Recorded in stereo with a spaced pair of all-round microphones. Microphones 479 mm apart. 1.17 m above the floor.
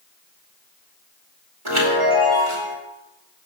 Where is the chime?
80° right, 2.5 m.